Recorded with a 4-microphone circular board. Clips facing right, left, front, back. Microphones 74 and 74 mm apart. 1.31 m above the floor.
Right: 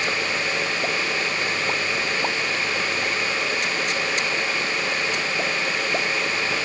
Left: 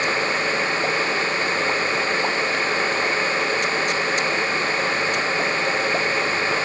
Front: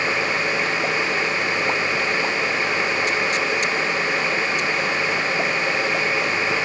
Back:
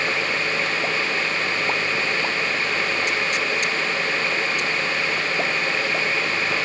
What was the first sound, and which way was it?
Only background noise.